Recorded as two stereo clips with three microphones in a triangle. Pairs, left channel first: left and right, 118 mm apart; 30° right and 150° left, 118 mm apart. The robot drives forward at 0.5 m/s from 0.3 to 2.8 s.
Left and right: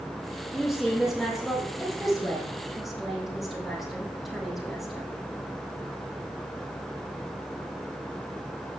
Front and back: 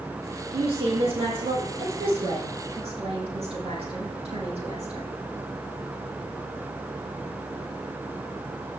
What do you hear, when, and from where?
0.5 s a woman speaking: straight behind, 3.5 m